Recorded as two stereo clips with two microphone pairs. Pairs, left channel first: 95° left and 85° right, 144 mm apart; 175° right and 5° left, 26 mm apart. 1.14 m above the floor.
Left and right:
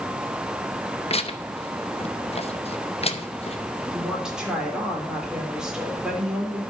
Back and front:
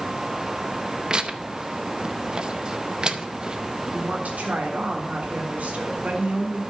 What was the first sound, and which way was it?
Tearing paper, 55° left.